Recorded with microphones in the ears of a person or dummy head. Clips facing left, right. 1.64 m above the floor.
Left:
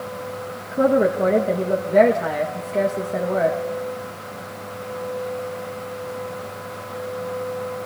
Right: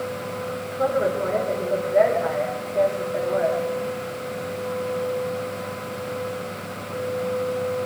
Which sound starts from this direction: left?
A woman speaking, at 0.7 s.